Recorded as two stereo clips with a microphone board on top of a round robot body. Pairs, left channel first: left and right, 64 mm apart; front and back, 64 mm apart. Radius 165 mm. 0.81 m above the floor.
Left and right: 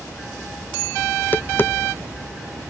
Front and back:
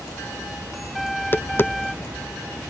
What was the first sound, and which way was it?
Tapping, 40° left.